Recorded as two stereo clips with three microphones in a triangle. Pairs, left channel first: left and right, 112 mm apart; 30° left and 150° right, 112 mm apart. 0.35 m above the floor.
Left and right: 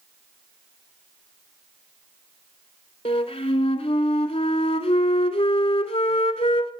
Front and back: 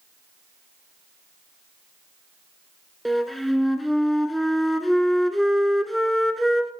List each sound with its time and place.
3.0 s a flute: 120° left, 0.8 m